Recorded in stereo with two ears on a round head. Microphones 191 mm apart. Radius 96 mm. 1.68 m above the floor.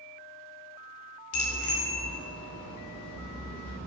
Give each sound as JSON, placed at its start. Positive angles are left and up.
{"t": 1.3, "sound": "a bicycle bell", "side_deg": 80, "distance_m": 3.5}